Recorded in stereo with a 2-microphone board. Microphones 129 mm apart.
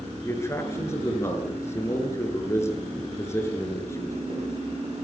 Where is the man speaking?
20° left (ahead or behind), 6 m.